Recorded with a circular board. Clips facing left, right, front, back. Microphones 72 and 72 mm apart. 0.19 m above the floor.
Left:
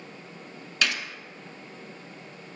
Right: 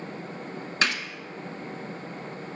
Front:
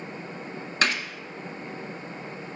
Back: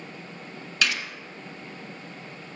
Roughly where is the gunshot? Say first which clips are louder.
Right 1 dB, front 2 dB; ahead right.